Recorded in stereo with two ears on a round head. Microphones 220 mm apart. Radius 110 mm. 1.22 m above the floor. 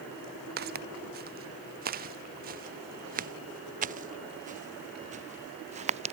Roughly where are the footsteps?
Right.